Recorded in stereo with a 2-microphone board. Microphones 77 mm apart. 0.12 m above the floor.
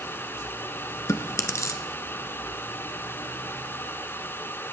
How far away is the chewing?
About 0.9 m.